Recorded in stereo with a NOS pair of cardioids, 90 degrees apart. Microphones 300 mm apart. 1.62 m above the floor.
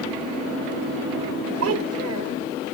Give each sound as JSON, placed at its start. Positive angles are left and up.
{"t": 1.6, "sound": "a child speaking", "azimuth_deg": -60}